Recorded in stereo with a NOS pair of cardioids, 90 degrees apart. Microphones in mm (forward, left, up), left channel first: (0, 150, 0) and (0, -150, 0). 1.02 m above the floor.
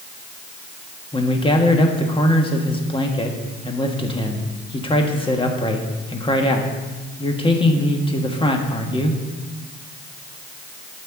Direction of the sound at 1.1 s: 15° left.